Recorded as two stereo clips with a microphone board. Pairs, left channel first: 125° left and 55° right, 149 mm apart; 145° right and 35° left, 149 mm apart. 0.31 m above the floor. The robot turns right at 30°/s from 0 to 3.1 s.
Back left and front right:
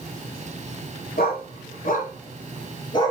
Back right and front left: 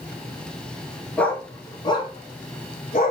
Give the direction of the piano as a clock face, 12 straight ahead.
I don't hear a piano.